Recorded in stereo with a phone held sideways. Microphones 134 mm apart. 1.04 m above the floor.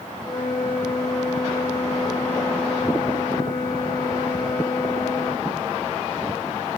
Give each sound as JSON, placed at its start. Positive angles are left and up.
{"t": 0.2, "sound": "a flute", "side_deg": 35, "distance_m": 5.0}